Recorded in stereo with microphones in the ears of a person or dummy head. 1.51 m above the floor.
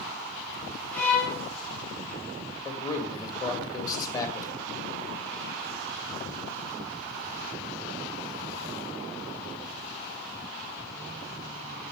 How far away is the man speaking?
About 2.0 m.